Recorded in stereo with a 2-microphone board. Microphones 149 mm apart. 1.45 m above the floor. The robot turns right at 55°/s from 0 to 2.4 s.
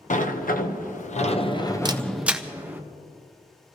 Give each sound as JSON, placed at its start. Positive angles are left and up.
{"t": 0.1, "sound": "a sliding door", "azimuth_deg": 65, "distance_m": 0.9}
{"t": 1.9, "sound": "a camera shutter", "side_deg": -30, "distance_m": 0.6}